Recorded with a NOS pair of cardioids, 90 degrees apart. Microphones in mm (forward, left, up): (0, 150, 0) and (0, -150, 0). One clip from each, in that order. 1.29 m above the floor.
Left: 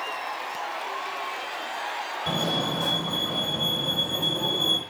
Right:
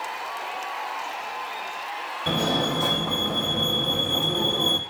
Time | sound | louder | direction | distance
2.3 | a fire alarm | right 3 dB | 35° right | 4.5 m